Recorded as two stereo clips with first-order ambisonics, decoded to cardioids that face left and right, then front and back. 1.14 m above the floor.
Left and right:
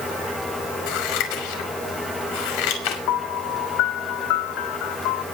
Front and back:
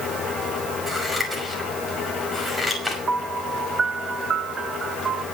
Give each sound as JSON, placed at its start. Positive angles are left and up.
{"t": 0.9, "sound": "scissors", "azimuth_deg": 90, "distance_m": 5.5}
{"t": 3.1, "sound": "a piano", "azimuth_deg": 110, "distance_m": 1.1}